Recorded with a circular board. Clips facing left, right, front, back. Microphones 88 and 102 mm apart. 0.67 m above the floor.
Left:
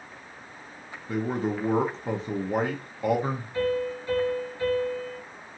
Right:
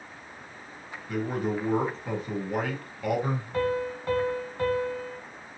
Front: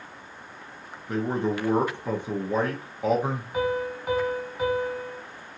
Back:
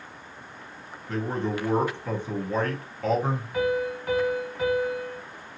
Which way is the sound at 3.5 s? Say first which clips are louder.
Left 1 dB, back 1 dB; 70° right.